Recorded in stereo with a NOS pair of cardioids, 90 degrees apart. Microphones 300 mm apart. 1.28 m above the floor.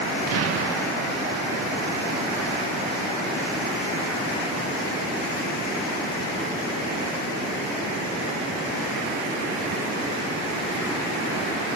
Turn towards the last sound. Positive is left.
turn(degrees=-55)